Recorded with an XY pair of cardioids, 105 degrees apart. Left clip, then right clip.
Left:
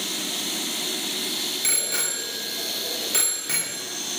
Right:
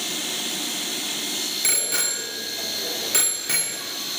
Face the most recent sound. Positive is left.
turn(degrees=-15)